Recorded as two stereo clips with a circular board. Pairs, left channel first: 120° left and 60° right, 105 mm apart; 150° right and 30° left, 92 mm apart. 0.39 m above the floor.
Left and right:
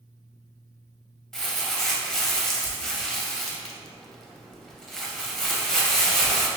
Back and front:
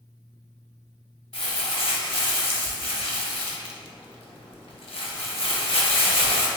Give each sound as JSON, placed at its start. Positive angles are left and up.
{"t": 1.3, "sound": "crumpling", "azimuth_deg": -155, "distance_m": 0.6}